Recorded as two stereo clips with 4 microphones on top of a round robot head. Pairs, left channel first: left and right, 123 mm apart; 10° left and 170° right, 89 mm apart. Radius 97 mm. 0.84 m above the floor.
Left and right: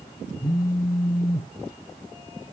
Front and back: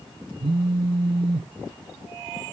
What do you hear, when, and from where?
0.4 s a phone buzzing: 155° left, 0.5 m